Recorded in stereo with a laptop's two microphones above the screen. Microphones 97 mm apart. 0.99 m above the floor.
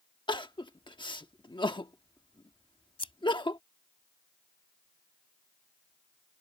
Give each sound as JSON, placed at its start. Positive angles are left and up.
{"t": 0.3, "sound": "crying", "side_deg": 50}
{"t": 3.0, "sound": "scissors", "side_deg": 60}